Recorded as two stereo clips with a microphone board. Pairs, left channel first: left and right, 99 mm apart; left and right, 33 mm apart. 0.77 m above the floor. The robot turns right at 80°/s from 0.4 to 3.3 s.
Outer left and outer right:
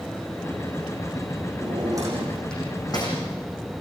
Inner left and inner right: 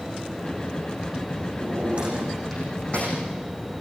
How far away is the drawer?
About 9 m.